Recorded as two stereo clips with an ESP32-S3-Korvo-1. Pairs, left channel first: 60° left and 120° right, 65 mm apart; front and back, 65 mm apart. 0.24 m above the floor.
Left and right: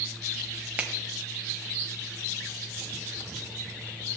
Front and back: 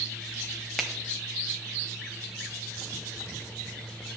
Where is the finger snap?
85° right, 0.8 m.